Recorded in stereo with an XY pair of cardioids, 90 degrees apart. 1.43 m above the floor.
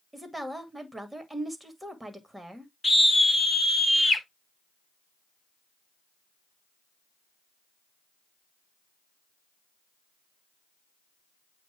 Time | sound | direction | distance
0.1 | a woman speaking | 15° right | 2 m
2.8 | a scream | 15° left | 3 m